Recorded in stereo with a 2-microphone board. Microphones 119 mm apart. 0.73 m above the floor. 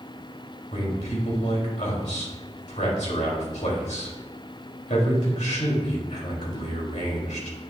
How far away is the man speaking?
About 3 m.